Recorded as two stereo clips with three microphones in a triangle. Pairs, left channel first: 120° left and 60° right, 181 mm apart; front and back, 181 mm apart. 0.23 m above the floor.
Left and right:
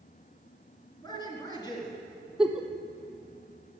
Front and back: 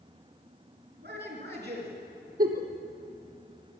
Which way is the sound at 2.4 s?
145° right.